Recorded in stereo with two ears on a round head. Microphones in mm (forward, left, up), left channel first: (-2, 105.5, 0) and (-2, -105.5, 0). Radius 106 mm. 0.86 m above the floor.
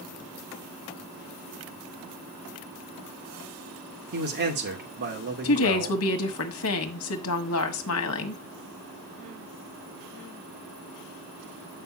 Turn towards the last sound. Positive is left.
turn(degrees=65)  # may be behind; listen again after turning